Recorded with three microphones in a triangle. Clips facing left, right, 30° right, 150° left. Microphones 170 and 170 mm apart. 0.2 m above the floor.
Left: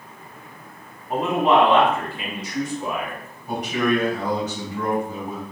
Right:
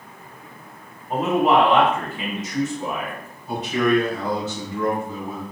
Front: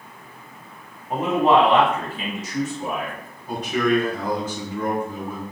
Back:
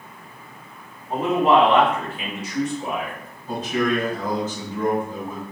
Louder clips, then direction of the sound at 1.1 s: Right 1 dB, even; straight ahead.